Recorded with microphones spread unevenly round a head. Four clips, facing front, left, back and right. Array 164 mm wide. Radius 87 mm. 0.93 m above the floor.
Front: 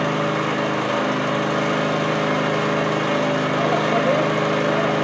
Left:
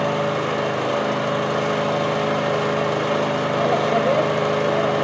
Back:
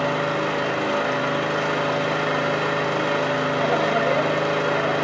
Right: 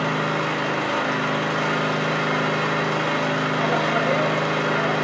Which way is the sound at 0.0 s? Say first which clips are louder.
Left 2 dB, front 1 dB; 60° left.